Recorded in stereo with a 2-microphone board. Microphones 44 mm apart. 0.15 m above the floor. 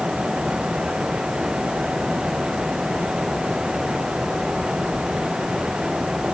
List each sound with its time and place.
Only background noise.